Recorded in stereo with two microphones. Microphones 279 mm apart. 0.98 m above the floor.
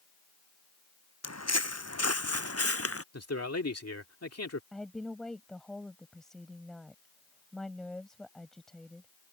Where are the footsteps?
65° left (ahead or behind); by 3.0 s 55° left (ahead or behind).